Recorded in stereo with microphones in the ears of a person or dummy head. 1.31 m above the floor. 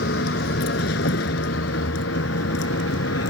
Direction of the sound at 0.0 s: 60° left (ahead or behind).